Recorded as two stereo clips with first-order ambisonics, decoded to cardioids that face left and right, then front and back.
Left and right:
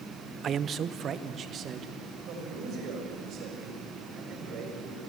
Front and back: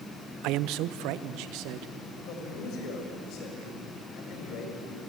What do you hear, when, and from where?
0.4 s a man speaking: 150° right, 0.6 m
2.2 s a man speaking: 40° right, 7 m